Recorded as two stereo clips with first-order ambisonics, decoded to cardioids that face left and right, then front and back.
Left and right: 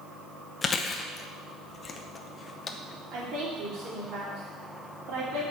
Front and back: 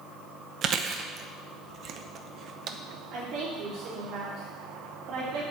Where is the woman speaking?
130° right, 5 m.